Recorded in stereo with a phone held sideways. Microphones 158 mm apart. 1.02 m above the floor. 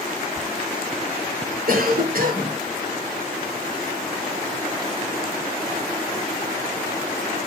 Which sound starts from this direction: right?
A cough, at 1.7 s.